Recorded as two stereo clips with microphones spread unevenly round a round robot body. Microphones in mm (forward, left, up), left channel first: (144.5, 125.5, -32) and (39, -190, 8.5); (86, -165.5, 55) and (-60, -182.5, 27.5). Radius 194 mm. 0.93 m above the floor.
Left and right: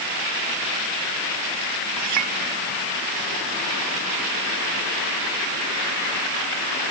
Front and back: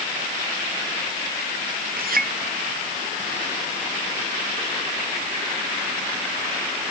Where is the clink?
160° right.